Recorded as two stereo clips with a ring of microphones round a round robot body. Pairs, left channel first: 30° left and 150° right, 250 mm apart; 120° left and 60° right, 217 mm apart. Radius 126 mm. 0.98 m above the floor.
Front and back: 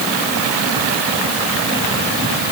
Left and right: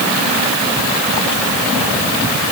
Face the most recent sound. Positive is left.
No sound to turn to.